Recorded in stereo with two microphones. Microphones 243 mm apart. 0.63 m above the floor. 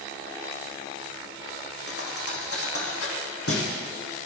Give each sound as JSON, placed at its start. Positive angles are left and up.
{"t": 1.9, "sound": "a thud", "side_deg": 65, "distance_m": 3.0}